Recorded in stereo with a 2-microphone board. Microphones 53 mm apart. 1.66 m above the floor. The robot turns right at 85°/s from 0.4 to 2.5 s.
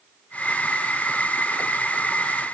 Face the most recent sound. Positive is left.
No sound to turn to.